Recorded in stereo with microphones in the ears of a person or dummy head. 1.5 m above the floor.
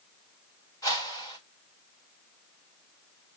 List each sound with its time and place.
0.8 s a whoosh: 20° left (ahead or behind), 1.7 m